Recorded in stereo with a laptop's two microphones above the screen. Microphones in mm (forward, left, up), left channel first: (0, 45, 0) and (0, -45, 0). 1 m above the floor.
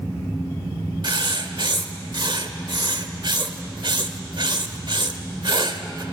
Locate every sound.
1.0 s writing: 60° right (ahead or behind), 1.3 m